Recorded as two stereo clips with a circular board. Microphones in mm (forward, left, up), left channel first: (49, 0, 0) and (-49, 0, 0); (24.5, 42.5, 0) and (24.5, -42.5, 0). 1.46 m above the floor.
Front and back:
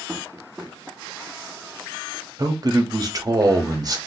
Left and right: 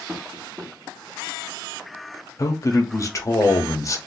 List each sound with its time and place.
0.1 s tapping: 100° right, 1.0 m
2.4 s a man speaking: 135° left, 0.7 m